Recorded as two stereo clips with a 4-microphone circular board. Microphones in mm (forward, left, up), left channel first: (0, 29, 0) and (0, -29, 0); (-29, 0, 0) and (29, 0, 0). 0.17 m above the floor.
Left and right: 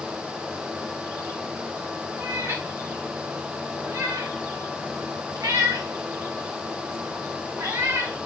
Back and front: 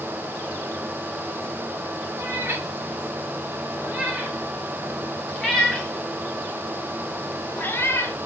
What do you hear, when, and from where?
2.2 s a cat meowing: 50° right, 3 m; by 8.2 s 130° right, 2.5 m